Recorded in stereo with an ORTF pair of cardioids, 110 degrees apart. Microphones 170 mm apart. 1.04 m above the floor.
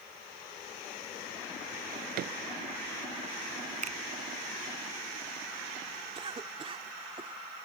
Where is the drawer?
65° right.